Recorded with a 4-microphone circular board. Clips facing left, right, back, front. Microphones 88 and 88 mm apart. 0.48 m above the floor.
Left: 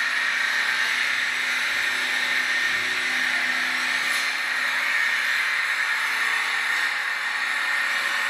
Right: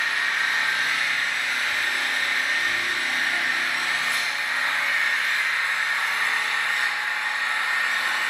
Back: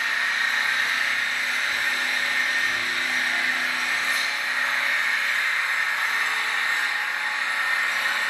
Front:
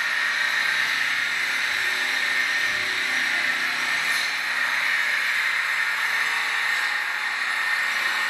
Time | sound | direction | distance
0.0 | an engine running | 130° right | 1.4 m